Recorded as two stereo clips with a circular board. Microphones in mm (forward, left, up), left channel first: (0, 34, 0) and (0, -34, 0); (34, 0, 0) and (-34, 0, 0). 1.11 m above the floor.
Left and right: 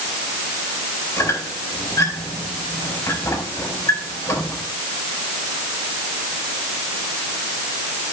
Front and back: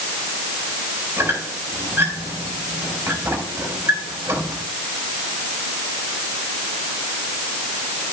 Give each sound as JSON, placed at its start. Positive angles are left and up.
{"t": 1.2, "sound": "a squeak", "azimuth_deg": 125, "distance_m": 4.5}